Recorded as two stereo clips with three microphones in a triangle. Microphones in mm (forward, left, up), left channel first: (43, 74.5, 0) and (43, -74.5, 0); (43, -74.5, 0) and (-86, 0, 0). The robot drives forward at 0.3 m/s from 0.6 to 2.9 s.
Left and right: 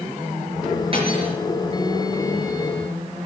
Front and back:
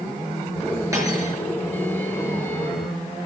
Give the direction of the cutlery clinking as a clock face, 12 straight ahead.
5 o'clock.